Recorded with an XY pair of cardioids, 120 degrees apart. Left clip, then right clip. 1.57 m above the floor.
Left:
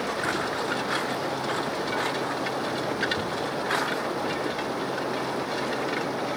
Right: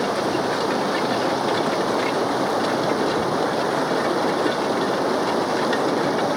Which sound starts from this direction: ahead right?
Running water, at 0.0 s.